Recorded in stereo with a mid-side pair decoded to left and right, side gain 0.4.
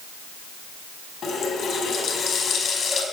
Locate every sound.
1.2 s a running tap: 70° left, 5 m